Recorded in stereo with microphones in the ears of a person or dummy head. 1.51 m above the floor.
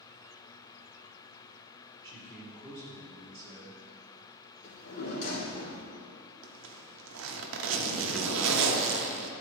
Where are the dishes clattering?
I don't hear dishes clattering.